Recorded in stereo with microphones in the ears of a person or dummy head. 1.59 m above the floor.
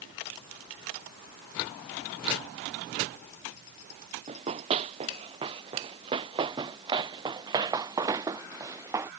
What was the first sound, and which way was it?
Running footsteps, 35° right (ahead or behind).